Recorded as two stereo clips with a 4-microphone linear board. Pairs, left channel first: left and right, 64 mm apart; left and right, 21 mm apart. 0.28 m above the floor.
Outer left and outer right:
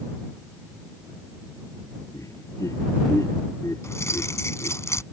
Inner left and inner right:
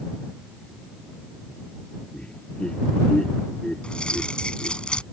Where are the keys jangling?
50° left (ahead or behind).